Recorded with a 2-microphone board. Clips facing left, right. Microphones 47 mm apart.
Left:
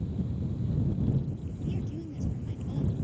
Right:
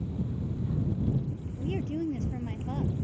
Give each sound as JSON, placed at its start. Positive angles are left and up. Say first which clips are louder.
{"t": 1.6, "sound": "a woman speaking", "louder": "right 6 dB", "side_deg": -50}